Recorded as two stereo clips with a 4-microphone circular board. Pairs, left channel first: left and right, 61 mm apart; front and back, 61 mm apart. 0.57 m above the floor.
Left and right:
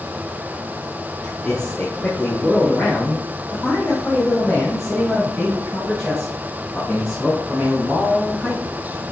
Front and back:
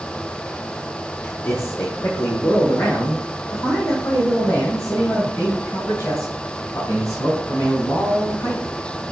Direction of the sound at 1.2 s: 30° left.